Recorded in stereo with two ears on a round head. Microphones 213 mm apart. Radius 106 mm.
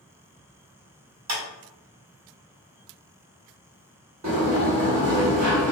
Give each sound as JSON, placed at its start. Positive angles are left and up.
{"t": 1.3, "sound": "a clap", "side_deg": -70, "distance_m": 1.8}
{"t": 4.2, "sound": "a sliding door", "side_deg": -70, "distance_m": 1.4}